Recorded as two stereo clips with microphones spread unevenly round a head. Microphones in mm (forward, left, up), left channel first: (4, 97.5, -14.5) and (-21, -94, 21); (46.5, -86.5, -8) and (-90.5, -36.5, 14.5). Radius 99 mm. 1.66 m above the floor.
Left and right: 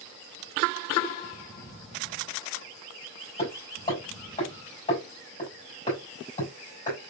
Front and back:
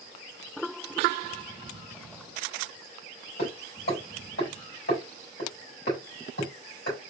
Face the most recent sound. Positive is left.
turn(degrees=15)